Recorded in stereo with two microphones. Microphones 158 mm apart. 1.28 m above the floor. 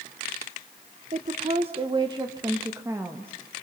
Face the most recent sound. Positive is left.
turn(degrees=-15)  # may be behind; listen again after turning